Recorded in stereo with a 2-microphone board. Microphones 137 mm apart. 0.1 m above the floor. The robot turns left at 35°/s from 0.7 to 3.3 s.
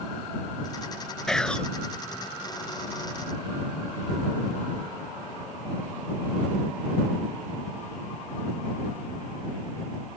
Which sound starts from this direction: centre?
Whispering, at 1.3 s.